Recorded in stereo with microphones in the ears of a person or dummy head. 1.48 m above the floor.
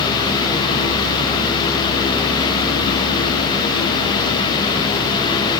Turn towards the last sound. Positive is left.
No sound to turn to.